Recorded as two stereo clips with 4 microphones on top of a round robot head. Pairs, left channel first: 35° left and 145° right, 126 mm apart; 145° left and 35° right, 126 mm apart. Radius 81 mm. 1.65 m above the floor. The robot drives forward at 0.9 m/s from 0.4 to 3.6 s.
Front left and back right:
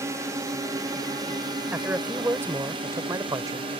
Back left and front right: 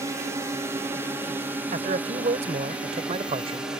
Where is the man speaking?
70° right; by 3.7 s 80° right.